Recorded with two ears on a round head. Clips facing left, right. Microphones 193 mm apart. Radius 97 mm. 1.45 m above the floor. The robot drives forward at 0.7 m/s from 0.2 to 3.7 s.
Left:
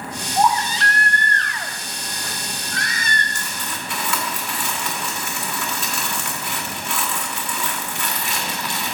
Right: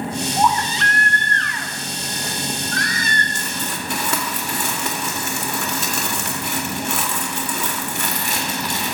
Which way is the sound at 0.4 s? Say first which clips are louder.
Left 2 dB; 25° left (ahead or behind).